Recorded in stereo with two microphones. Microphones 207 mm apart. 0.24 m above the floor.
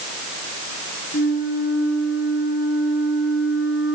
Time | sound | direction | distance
1.1 | a flute | 70° left (ahead or behind) | 2.5 m